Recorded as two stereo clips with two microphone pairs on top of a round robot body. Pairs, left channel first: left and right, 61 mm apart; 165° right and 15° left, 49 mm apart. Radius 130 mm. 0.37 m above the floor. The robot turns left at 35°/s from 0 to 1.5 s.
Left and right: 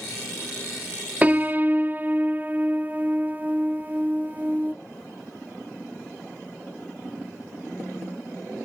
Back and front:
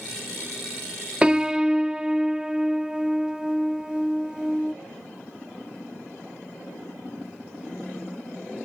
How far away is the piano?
About 0.7 m.